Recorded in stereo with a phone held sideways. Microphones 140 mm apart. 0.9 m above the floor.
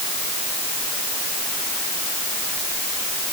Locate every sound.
Only background noise.